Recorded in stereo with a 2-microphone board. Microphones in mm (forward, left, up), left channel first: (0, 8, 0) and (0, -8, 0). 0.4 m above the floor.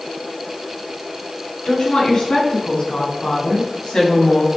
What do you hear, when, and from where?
1.6 s a woman speaking: 75° left (ahead or behind), 4.5 m; by 4.5 s 60° left (ahead or behind), 3 m